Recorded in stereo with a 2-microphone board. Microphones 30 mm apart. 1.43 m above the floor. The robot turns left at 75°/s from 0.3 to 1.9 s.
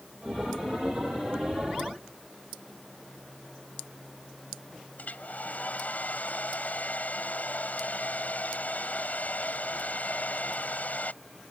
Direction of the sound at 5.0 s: 55° left (ahead or behind).